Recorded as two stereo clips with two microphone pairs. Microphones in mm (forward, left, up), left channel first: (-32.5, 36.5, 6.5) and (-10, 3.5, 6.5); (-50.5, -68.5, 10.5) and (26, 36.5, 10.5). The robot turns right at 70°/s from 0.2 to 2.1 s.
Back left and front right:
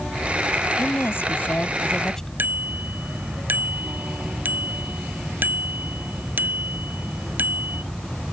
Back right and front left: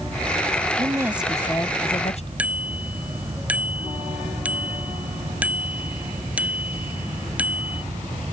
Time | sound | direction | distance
0.8 | a woman speaking | 110° left | ?
2.4 | a bicycle bell | 25° right | ?